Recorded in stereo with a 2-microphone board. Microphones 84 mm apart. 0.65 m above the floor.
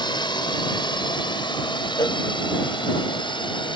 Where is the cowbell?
50° left (ahead or behind).